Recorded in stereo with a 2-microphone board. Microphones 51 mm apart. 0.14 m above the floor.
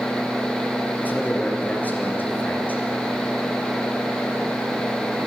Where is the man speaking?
35° left (ahead or behind), 2.5 m.